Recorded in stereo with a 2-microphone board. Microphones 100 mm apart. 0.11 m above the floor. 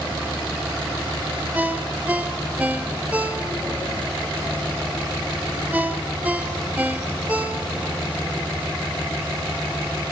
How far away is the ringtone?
About 1.4 m.